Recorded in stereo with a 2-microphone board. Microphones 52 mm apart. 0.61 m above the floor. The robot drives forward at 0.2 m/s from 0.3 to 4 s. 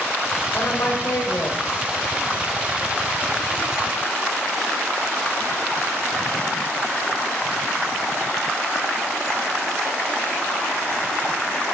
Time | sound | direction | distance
0.5 | a woman speaking | 55° left (ahead or behind) | 2 m